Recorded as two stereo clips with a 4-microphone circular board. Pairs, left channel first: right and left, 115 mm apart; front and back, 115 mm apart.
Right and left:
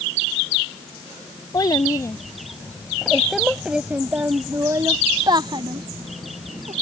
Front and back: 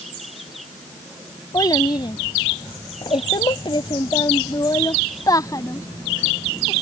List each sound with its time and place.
1.5 s a child speaking: 45° right; by 6.7 s 65° left